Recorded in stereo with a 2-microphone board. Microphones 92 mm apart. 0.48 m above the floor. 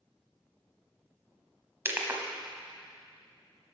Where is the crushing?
25° right (ahead or behind), 0.9 m.